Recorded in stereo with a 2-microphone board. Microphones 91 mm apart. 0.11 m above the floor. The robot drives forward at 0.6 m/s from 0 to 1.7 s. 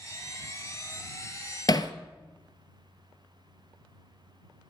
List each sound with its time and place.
1.7 s hammering: 50° left (ahead or behind), 0.6 m